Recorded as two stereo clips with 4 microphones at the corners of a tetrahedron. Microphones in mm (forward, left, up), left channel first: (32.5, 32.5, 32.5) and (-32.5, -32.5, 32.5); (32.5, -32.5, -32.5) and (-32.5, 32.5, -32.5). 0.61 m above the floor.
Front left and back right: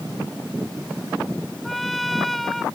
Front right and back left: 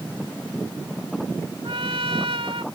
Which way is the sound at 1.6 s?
135° left.